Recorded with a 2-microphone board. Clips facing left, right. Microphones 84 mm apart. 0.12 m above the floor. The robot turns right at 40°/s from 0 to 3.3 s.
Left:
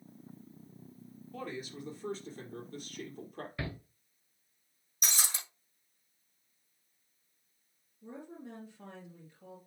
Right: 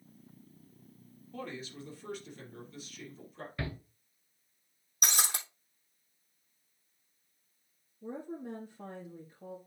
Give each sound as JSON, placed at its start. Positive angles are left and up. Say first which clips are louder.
{"t": 1.3, "sound": "a man speaking", "louder": "left 1 dB", "azimuth_deg": 0, "distance_m": 3.5}
{"t": 3.6, "sound": "a shout", "louder": "right 2 dB", "side_deg": 0, "distance_m": 1.5}
{"t": 5.0, "sound": "breaking glass", "louder": "right 4 dB", "side_deg": -65, "distance_m": 3.0}
{"t": 8.0, "sound": "a woman speaking", "louder": "right 6 dB", "side_deg": -45, "distance_m": 2.5}